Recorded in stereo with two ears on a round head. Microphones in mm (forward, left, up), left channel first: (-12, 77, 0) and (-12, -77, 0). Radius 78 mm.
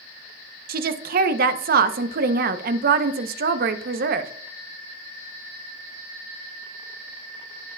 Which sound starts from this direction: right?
A woman speaking, at 0.7 s.